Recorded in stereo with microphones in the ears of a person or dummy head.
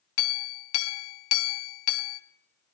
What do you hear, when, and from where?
0.2 s a clink: 60° left (ahead or behind), 0.5 m